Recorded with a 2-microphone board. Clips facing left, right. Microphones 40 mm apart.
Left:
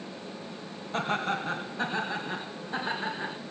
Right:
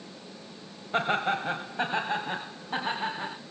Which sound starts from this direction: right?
Laughter, at 0.9 s.